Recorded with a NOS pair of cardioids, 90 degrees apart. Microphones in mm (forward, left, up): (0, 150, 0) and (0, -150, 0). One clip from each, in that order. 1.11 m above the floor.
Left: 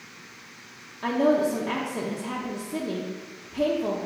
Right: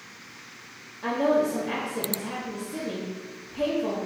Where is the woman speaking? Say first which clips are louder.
Left 1 dB; 25° left, 0.7 m.